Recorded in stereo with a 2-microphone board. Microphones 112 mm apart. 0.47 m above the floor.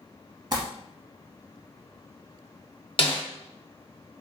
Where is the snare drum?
55° left (ahead or behind), 0.6 m.